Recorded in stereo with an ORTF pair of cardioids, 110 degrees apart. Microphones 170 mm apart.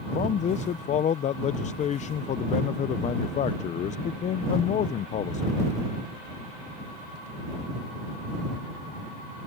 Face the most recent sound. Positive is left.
turn(degrees=40)